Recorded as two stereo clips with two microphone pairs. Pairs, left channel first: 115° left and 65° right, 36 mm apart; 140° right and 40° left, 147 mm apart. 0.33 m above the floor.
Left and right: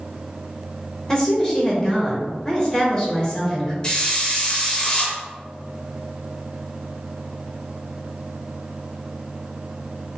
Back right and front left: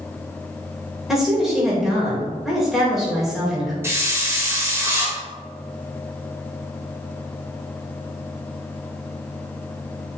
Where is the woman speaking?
125° left, 0.8 m.